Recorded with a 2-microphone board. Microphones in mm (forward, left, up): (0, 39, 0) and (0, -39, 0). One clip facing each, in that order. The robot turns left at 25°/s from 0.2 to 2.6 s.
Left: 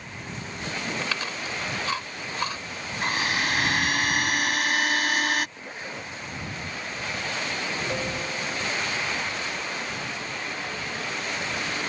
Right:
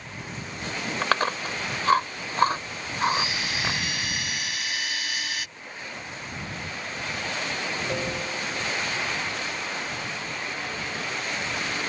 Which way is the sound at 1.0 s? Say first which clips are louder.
Right 6 dB; 50° right (ahead or behind).